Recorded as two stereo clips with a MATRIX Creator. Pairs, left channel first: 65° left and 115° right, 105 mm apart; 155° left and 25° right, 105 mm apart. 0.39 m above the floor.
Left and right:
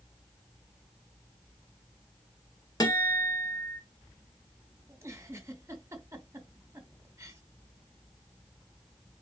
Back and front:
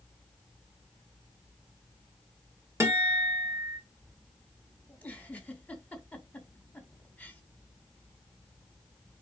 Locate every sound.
2.8 s a guitar: 30° left, 2 m
4.9 s a giggle: 140° right, 1.3 m